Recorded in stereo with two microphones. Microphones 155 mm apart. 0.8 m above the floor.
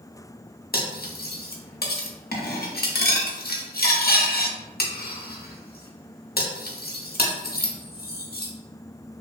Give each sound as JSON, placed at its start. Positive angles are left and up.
{"t": 0.7, "sound": "cutlery clinking", "side_deg": 80, "distance_m": 0.5}